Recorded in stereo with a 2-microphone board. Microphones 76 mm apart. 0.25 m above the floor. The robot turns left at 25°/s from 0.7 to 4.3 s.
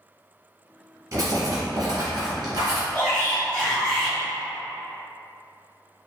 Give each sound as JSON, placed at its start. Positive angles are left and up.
{"t": 1.1, "sound": "writing", "azimuth_deg": -55, "distance_m": 1.1}
{"t": 2.9, "sound": "a shout", "azimuth_deg": 35, "distance_m": 1.5}